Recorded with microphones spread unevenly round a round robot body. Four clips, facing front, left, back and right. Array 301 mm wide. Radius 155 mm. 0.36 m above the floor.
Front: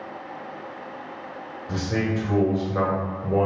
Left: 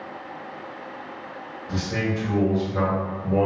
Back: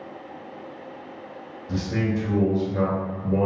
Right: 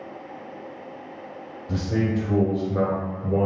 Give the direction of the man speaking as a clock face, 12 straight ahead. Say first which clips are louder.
Right 2 dB, even; 1 o'clock.